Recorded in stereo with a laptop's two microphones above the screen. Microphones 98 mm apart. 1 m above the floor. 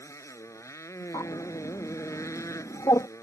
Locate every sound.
0.0 s a motorcycle: 30° left (ahead or behind)
1.1 s a bird: 45° left (ahead or behind)